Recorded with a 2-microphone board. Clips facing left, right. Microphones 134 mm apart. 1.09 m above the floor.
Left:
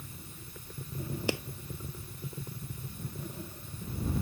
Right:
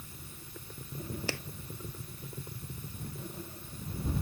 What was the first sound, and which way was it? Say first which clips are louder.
A clap: left 7 dB; 15° left (ahead or behind).